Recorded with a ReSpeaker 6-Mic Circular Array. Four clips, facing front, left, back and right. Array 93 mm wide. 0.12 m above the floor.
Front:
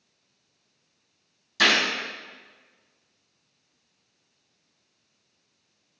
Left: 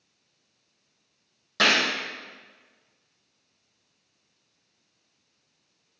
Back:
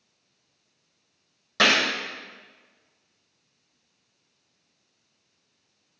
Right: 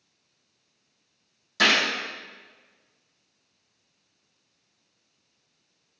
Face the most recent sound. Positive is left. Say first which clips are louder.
# even, back 1 dB
turn(degrees=150)